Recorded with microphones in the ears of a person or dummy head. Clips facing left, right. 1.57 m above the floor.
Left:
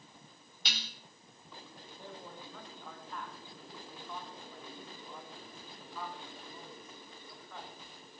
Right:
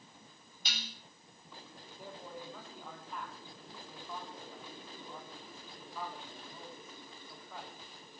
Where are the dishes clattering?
60° left (ahead or behind), 3 m.